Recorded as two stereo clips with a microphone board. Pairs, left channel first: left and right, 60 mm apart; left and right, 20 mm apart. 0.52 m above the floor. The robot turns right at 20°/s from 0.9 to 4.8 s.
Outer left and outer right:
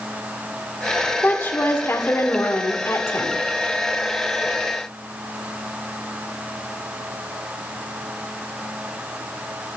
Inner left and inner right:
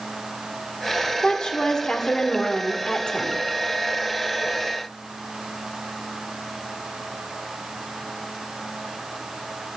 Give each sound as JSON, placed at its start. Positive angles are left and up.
{"t": 1.2, "sound": "a woman speaking", "azimuth_deg": 45, "distance_m": 1.5}